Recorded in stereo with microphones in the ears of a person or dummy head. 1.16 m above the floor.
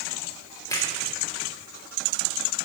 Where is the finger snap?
15° left (ahead or behind), 3 m.